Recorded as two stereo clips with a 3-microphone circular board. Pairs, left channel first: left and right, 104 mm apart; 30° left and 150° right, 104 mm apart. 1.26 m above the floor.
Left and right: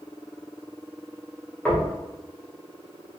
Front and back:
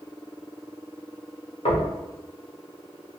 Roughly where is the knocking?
Ahead.